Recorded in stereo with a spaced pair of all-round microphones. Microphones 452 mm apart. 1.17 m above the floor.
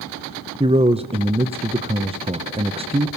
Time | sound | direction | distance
0.6 | a man speaking | 15° right (ahead or behind) | 0.7 m